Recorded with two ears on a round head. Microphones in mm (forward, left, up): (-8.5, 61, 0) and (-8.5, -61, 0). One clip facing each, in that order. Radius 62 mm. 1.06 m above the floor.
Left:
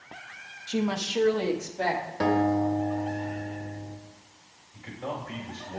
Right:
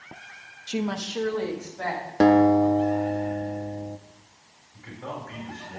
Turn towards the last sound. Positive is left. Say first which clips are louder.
# left 1 dB
turn(degrees=10)  # may be behind; listen again after turning